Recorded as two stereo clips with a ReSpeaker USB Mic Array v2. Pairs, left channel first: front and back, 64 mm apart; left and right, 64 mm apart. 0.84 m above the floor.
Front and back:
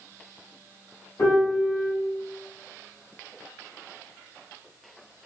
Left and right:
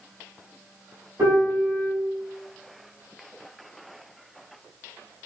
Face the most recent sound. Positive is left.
turn(degrees=-50)